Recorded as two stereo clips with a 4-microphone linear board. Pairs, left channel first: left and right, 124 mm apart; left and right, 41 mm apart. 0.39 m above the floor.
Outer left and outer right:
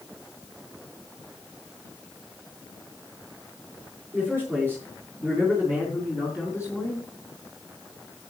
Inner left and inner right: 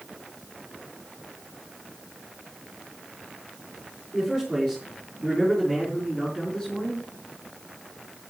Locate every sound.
4.1 s a man speaking: 20° right (ahead or behind), 6.5 m; by 7.1 s 5° right (ahead or behind), 3.5 m